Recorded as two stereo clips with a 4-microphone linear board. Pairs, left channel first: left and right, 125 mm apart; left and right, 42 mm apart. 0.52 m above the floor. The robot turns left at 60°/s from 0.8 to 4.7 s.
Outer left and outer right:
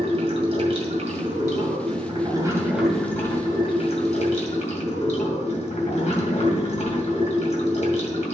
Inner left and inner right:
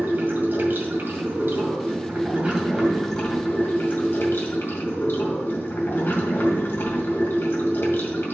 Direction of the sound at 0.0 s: 55° right.